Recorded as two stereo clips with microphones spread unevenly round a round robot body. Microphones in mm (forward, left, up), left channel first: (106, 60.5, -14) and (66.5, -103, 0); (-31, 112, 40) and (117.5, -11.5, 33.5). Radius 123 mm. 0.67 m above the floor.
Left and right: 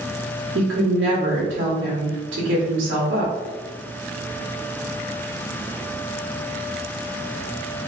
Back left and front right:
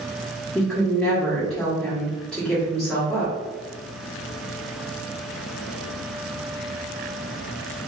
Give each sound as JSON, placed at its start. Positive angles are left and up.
{"t": 0.6, "sound": "a woman speaking", "azimuth_deg": -130, "distance_m": 1.5}